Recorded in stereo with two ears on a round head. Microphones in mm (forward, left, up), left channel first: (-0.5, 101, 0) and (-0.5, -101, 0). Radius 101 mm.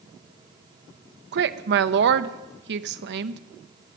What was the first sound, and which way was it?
A woman speaking, 50° right (ahead or behind).